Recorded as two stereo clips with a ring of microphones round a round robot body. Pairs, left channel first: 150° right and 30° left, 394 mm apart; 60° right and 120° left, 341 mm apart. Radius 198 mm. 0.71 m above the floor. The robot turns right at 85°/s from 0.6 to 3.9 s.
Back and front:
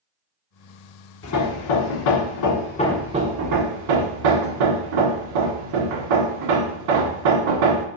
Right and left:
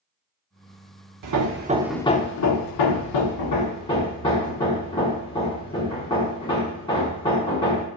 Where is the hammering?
150° left, 1.0 m; by 7.9 s 20° left, 1.0 m.